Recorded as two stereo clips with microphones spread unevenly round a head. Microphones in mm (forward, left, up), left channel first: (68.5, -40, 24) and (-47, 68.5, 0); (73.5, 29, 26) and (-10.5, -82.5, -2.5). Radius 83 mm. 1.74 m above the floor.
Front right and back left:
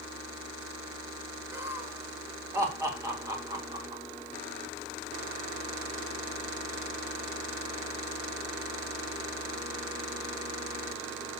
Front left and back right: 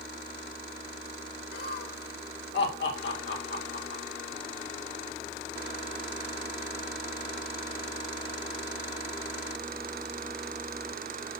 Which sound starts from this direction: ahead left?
Laughter, at 1.5 s.